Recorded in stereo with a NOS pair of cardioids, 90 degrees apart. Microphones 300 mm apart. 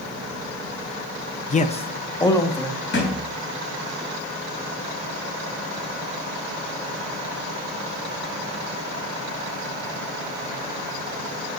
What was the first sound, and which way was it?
A man speaking, 25° left.